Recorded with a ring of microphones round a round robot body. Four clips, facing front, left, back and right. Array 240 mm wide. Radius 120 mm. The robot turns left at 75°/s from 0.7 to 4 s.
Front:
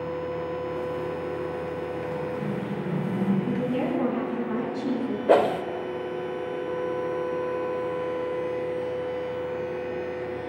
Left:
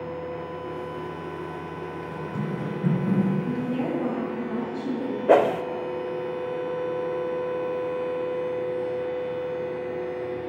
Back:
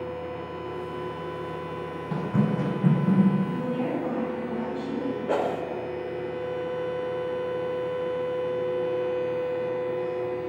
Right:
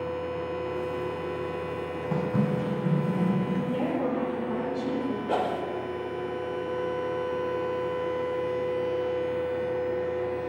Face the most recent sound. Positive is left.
turn(degrees=60)